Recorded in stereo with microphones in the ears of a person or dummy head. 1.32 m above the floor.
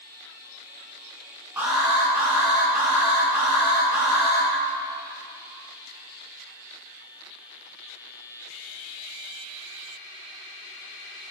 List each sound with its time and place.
1.6 s an alarm: 10° right (ahead or behind), 3.5 m